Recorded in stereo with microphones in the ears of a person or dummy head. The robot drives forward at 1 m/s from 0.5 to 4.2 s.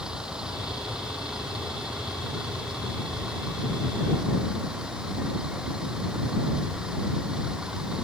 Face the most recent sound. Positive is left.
turn(degrees=0)  # may be behind; listen again after turning